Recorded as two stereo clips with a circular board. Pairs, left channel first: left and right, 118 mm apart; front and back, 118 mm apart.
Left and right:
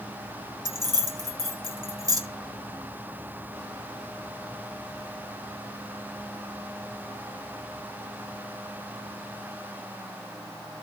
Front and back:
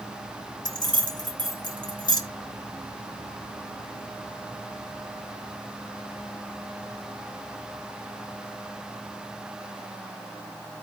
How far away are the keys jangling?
About 1.6 m.